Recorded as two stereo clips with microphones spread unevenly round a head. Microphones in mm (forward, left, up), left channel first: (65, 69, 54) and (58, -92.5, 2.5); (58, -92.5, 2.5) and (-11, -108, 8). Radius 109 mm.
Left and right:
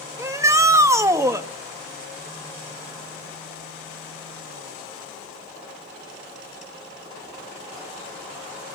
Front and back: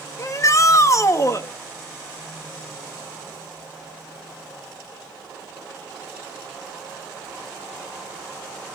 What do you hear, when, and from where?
0.2 s a shout: 25° right, 2 m